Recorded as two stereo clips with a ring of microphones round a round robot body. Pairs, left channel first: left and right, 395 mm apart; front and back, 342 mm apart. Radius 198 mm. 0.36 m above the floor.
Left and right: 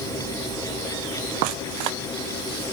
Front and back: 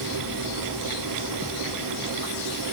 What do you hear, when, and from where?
Only background noise.